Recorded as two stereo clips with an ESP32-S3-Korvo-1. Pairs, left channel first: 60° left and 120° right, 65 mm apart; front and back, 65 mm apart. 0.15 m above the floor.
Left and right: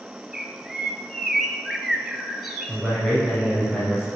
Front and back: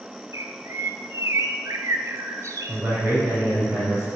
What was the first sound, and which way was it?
A bird, 155° left.